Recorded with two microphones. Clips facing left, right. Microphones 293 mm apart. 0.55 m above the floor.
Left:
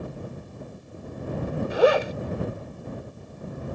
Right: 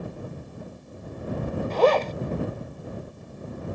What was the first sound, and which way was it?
A zipper, 10° left (ahead or behind).